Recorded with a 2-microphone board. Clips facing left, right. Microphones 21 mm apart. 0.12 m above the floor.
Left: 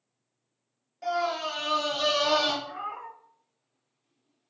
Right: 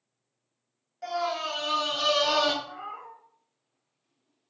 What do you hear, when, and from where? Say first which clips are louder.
1.0 s a scream: left 1 dB; centre (ahead or behind), 1.3 m; by 2.5 s 40° right (ahead or behind), 1.6 m
2.6 s a cat meowing: left 3 dB; 60° left (ahead or behind), 0.7 m